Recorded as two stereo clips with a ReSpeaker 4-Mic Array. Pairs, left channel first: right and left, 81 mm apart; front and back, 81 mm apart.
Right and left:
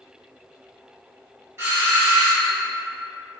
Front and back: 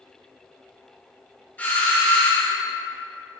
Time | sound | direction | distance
1.6 | a doorbell | 55° left | 1.8 m